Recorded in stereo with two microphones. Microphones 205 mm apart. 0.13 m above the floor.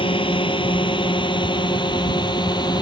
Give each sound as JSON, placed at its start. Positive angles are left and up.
{"t": 0.0, "sound": "a drone", "side_deg": 25}